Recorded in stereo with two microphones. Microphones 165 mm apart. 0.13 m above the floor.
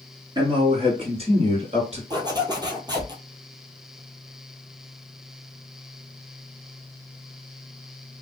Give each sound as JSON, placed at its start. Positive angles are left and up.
{"t": 0.3, "sound": "a man speaking", "side_deg": -30, "distance_m": 1.5}
{"t": 2.1, "sound": "a zipper", "side_deg": -25, "distance_m": 0.7}